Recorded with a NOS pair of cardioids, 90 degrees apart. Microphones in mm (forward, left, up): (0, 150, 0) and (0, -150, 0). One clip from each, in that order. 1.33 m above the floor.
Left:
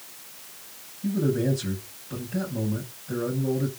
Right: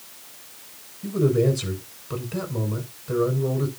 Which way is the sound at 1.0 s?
70° right.